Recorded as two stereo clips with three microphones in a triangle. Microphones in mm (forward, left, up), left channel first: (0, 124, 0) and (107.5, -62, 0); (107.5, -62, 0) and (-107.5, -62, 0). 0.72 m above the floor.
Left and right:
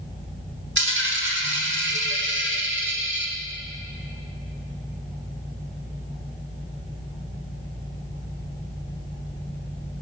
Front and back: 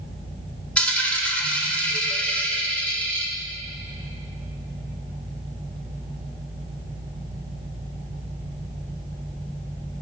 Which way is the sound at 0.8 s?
85° right.